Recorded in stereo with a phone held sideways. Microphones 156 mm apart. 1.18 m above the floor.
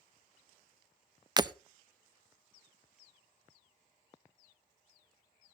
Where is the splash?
I don't hear a splash.